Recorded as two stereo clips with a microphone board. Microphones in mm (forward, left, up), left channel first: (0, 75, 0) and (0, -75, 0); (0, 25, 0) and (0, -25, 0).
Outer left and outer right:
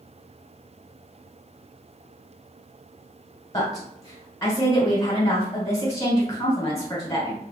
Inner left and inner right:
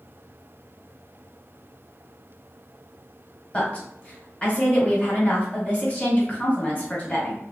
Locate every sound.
3.5 s a woman speaking: 20° left (ahead or behind), 1.3 m